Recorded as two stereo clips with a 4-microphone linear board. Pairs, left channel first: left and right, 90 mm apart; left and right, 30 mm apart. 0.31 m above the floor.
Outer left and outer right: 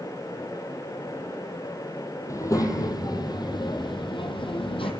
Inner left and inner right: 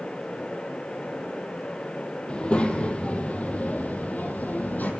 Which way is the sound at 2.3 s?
35° left (ahead or behind).